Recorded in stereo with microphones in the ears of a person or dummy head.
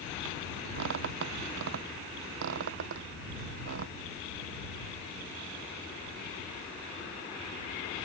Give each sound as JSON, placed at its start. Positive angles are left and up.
{"t": 0.8, "sound": "a squeak", "side_deg": -60}